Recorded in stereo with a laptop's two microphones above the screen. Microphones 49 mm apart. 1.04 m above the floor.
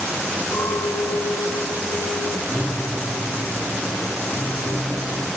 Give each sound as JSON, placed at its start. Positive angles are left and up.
{"t": 0.5, "sound": "a clink", "side_deg": 65, "distance_m": 3.0}
{"t": 2.5, "sound": "a piano", "side_deg": 60, "distance_m": 3.5}